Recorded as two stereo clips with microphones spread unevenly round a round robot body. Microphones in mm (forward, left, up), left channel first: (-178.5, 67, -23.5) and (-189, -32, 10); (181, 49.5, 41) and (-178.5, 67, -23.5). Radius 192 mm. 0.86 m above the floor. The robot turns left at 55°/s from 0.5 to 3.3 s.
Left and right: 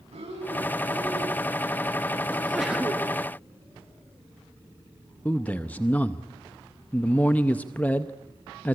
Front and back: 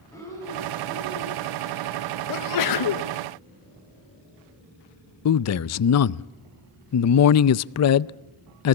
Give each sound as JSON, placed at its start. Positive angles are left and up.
{"t": 0.1, "sound": "breathing", "azimuth_deg": -85, "distance_m": 3.5}
{"t": 2.3, "sound": "a sneeze", "azimuth_deg": 30, "distance_m": 1.1}
{"t": 5.2, "sound": "a man speaking", "azimuth_deg": 35, "distance_m": 0.5}